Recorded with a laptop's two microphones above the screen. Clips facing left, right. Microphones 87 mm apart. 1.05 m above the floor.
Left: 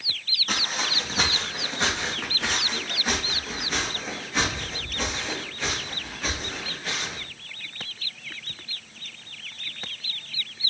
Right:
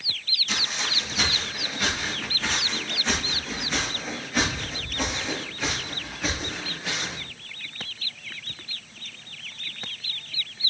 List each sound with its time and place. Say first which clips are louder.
0.5 s footsteps: left 2 dB; 50° left (ahead or behind), 2.5 m; by 7.2 s 20° right (ahead or behind), 6 m